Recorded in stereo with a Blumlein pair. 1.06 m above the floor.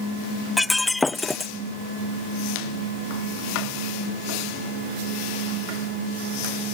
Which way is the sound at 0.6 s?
5° left.